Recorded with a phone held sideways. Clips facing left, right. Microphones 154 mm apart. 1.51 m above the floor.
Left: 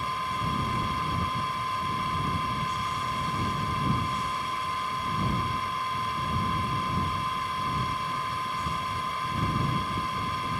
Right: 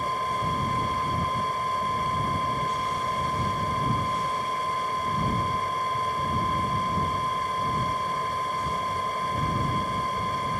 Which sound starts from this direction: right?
A fan, at 0.0 s.